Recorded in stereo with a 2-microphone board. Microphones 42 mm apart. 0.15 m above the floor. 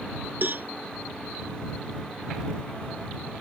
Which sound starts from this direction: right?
A cowbell, at 0.4 s.